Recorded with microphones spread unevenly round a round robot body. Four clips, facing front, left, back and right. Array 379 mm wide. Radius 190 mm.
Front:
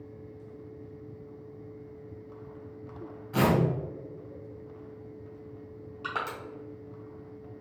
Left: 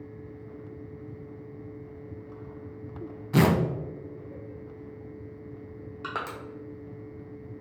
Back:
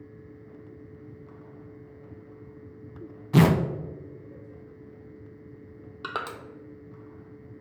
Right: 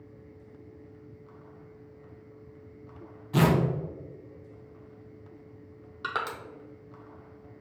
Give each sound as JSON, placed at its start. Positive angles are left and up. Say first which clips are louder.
{"t": 3.3, "sound": "tearing paper", "louder": "left 1 dB, back 4 dB", "azimuth_deg": 155, "distance_m": 0.5}
{"t": 6.0, "sound": "crushing", "louder": "right 2 dB, even", "azimuth_deg": -165, "distance_m": 0.5}